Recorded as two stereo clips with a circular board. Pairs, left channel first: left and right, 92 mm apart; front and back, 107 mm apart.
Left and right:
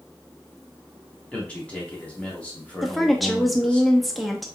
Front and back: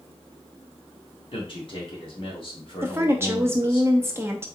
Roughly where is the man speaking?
Ahead.